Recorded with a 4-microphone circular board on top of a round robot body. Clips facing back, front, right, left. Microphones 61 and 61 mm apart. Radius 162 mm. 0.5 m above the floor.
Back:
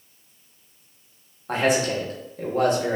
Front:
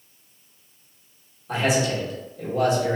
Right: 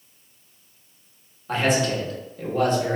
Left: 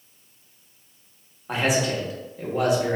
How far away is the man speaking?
About 1.4 m.